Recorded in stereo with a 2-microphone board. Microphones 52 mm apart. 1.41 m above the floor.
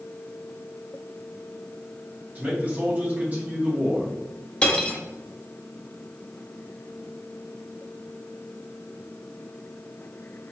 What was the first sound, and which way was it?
A man speaking, 35° right (ahead or behind).